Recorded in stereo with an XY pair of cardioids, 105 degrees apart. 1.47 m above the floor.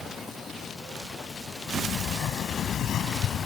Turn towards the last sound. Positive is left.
turn(degrees=70)